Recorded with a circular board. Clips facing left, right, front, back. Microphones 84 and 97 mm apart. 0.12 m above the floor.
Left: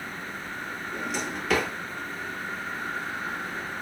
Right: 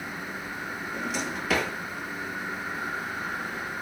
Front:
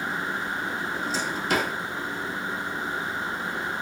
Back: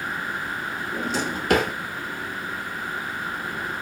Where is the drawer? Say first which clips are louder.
Even, back 2 dB; 175° right, 0.6 m.